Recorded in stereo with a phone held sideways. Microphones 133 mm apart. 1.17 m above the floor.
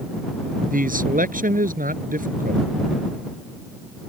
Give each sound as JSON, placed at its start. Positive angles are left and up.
{"t": 0.7, "sound": "a man speaking", "side_deg": -85}